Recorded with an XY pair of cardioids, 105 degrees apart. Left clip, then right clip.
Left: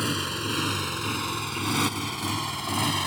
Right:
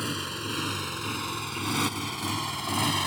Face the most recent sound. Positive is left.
turn(degrees=-5)